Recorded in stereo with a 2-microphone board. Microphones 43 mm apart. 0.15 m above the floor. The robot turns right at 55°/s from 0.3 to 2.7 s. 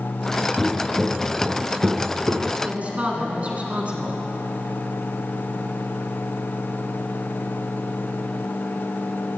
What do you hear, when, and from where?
0.6 s footsteps: 30° right (ahead or behind), 1.1 m; by 2.5 s 35° right (ahead or behind), 1.1 m
2.6 s a woman speaking: 30° right (ahead or behind), 1.3 m; by 4.2 s 35° right (ahead or behind), 1.3 m